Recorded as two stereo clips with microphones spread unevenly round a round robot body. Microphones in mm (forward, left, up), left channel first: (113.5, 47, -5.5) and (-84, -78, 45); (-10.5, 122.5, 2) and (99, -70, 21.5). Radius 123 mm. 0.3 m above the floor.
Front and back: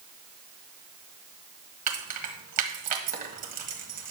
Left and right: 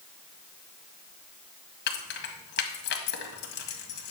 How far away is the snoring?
I don't hear snoring.